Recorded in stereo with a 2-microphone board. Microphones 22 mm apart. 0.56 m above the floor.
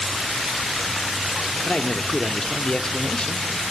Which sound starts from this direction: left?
A man speaking, at 1.6 s.